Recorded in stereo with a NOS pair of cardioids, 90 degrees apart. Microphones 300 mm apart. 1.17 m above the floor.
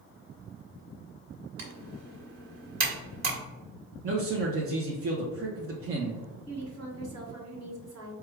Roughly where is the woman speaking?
Ahead right.